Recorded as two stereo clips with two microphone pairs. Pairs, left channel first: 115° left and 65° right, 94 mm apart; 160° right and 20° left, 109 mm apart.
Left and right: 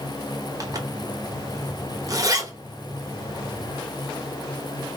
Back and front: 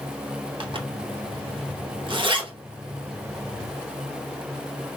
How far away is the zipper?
About 1.0 m.